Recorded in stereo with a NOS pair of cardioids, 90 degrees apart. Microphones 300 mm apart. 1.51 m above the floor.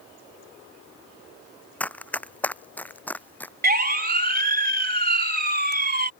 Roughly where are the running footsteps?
Ahead.